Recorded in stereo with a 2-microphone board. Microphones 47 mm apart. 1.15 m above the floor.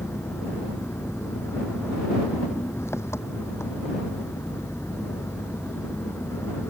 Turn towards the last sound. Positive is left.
turn(degrees=80)